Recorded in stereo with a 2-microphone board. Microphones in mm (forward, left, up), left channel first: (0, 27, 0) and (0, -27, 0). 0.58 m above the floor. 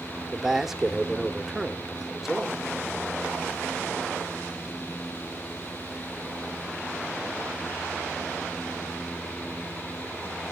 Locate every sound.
0.3 s a man speaking: 5° right (ahead or behind), 1.3 m